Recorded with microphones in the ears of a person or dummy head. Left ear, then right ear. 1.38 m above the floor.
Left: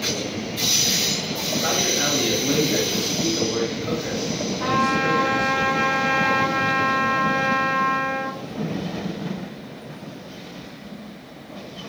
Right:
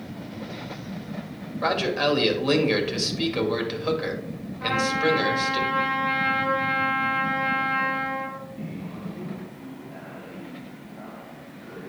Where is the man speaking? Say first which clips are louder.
Even; 75° right (ahead or behind), 2 m.